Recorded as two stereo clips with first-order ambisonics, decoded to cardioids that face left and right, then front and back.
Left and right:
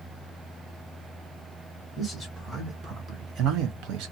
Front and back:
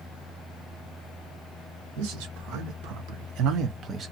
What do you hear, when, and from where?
2.0 s a man speaking: straight behind, 1.4 m; by 4.1 s 110° right, 0.8 m